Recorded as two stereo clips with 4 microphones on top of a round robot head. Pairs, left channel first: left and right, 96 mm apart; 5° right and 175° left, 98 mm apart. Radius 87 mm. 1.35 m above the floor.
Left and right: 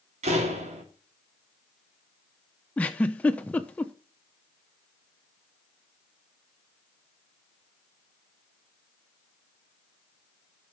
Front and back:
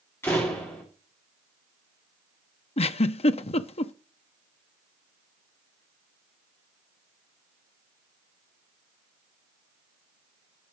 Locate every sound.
0.2 s a door slam: 80° right, 3.5 m
2.8 s a giggle: 10° left, 0.7 m